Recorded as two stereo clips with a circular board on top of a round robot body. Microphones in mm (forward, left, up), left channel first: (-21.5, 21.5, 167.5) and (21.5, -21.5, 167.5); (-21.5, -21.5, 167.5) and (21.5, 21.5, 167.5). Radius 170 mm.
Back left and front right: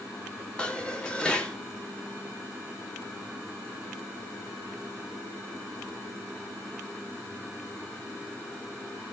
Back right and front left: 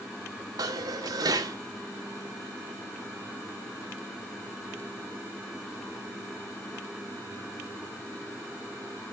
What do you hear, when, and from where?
0.6 s dishes clattering: 60° left, 0.9 m